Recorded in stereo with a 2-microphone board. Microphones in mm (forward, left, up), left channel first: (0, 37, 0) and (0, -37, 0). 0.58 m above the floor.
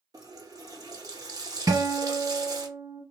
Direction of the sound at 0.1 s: 55° right (ahead or behind).